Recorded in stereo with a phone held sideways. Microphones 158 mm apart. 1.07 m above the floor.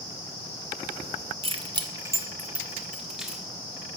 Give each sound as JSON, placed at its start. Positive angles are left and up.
{"t": 1.4, "sound": "keys jangling", "side_deg": -40, "distance_m": 0.8}